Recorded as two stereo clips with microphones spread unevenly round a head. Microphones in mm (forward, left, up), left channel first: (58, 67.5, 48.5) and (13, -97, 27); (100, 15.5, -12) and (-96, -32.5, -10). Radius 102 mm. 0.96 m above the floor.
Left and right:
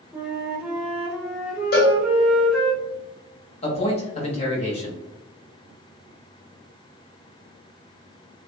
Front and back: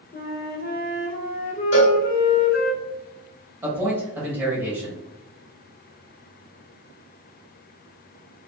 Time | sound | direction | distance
0.1 | a flute | 15° right | 0.6 m
1.7 | a cowbell | 50° left | 1.0 m
3.6 | a man speaking | 115° left | 0.9 m